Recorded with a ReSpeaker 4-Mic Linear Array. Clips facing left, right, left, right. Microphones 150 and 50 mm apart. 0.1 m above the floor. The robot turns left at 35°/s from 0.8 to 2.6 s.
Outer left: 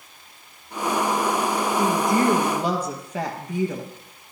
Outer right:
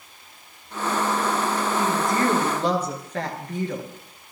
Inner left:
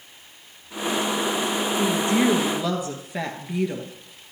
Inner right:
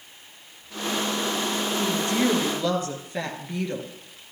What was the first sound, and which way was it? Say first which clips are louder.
A woman speaking: outer left 3 dB, inner left 3 dB; 30° left (ahead or behind).